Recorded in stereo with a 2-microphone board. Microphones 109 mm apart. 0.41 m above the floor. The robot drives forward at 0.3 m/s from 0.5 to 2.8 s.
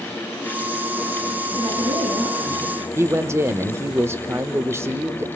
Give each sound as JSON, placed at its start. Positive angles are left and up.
{"t": 1.6, "sound": "a woman speaking", "side_deg": -80, "distance_m": 7.0}
{"t": 3.0, "sound": "a man speaking", "side_deg": -25, "distance_m": 0.8}